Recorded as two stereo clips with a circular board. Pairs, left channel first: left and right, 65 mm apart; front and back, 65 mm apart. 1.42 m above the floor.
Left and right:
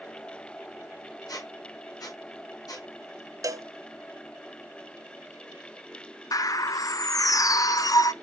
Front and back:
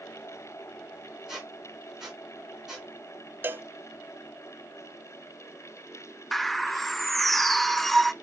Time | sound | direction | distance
1.3 | a squeak | 100° left | 4 m
3.4 | a cowbell | 120° right | 0.7 m
6.3 | a bird | 85° left | 0.5 m